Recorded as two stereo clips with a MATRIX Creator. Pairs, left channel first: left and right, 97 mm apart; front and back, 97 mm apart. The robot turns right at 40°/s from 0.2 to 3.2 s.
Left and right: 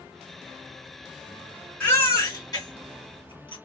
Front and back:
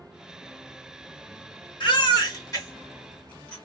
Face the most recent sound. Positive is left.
turn(degrees=80)